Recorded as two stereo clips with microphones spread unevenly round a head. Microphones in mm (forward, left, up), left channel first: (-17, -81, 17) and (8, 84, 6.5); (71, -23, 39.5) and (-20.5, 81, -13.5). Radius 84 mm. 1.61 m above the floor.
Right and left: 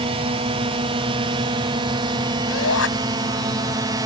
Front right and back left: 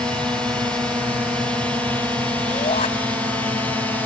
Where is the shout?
105° right.